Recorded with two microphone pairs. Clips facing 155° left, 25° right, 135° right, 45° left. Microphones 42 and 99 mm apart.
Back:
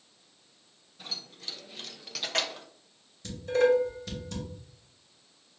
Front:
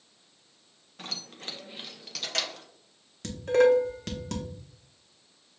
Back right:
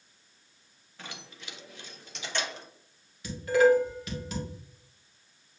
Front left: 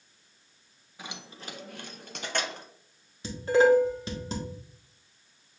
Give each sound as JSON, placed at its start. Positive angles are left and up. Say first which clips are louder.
{"t": 1.0, "sound": "keys jangling", "louder": "front 2 dB, front left 3 dB", "azimuth_deg": -35, "distance_m": 0.7}
{"t": 3.2, "sound": "dishes clattering", "louder": "front 3 dB, front left 1 dB", "azimuth_deg": -15, "distance_m": 1.1}